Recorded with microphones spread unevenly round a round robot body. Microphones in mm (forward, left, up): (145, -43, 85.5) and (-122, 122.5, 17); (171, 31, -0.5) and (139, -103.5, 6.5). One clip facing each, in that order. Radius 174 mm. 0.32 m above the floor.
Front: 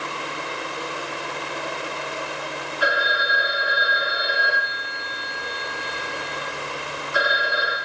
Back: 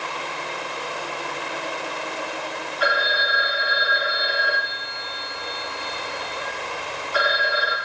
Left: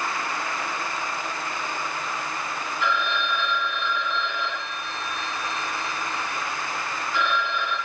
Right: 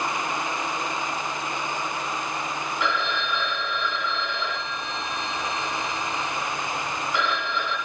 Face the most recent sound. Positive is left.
turn(degrees=-110)